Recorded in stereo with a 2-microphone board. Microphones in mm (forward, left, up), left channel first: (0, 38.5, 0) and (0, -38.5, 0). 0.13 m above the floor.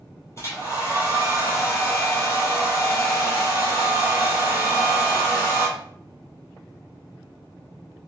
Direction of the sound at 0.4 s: 35° left (ahead or behind).